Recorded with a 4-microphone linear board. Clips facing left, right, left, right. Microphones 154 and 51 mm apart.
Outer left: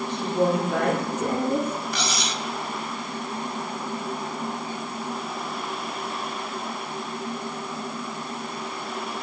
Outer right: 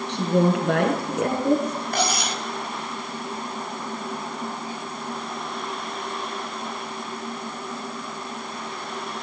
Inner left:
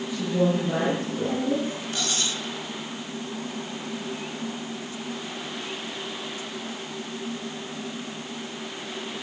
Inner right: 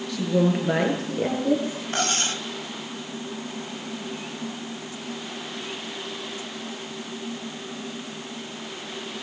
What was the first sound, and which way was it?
A woman speaking, 70° right (ahead or behind).